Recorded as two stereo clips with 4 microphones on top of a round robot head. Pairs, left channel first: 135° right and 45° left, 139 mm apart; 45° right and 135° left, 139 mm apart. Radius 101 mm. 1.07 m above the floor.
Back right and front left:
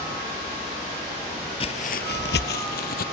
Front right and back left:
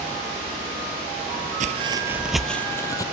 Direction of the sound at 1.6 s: 175° left.